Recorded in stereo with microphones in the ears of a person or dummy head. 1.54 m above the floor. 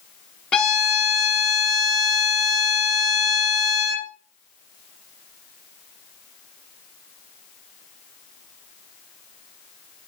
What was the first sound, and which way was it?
A violin, 15° left (ahead or behind).